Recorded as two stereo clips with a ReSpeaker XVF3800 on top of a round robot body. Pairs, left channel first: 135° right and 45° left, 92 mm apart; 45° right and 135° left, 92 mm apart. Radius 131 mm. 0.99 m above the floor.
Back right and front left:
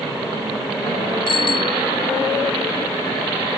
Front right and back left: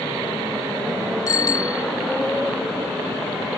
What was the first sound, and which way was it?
A bicycle bell, 100° right.